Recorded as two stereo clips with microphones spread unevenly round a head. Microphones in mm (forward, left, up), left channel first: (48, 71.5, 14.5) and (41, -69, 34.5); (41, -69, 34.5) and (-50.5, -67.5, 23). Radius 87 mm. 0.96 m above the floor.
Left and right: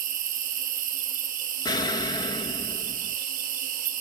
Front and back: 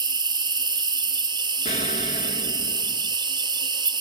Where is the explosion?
25° left, 1.7 m.